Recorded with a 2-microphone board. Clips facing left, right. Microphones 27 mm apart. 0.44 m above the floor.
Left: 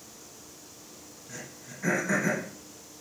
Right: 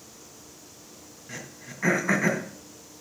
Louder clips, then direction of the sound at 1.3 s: Right 3 dB; 55° right (ahead or behind).